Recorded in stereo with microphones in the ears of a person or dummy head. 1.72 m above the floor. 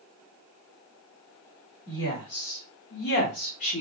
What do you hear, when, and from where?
1.9 s a woman speaking: 75° left (ahead or behind), 1.7 m; by 3.8 s 30° left (ahead or behind), 0.9 m